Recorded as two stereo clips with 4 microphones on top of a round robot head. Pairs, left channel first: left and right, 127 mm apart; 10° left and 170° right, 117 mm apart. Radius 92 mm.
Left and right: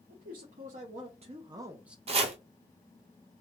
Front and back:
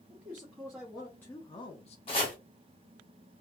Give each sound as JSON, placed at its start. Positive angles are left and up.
{"t": 0.1, "sound": "a man speaking", "azimuth_deg": -105, "distance_m": 1.2}
{"t": 2.1, "sound": "chopping", "azimuth_deg": -50, "distance_m": 0.8}